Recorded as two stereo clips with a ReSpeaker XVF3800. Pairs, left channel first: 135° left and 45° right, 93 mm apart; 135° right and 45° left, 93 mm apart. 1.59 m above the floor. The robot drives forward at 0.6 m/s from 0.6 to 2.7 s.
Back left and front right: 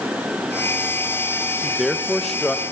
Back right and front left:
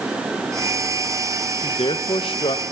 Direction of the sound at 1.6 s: 130° right.